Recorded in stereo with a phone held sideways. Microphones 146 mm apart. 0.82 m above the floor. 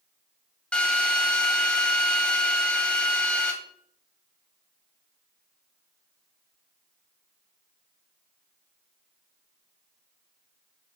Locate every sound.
0.7 s a drill: 10° left (ahead or behind), 1.5 m